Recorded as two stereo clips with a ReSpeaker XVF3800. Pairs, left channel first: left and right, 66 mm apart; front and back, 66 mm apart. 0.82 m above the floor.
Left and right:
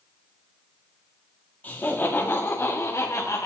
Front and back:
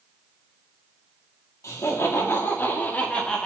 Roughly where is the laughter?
Ahead left.